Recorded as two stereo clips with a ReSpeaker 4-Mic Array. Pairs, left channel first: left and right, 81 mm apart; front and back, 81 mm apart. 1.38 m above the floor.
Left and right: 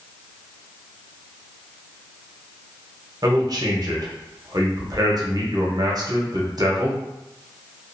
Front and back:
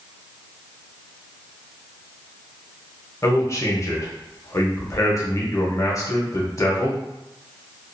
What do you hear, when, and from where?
3.2 s a man speaking: 50° right, 0.8 m